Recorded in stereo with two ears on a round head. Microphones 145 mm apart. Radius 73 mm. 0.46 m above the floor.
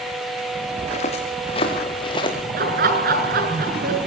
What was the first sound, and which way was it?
Footsteps, 45° left (ahead or behind).